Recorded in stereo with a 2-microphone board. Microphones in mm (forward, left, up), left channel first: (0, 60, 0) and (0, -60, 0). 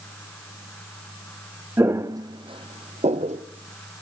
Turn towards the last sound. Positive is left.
turn(degrees=-70)  # may be behind; listen again after turning